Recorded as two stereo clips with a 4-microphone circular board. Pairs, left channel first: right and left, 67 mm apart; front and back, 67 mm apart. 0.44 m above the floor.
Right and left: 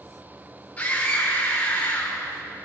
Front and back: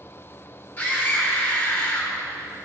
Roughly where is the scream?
Ahead right.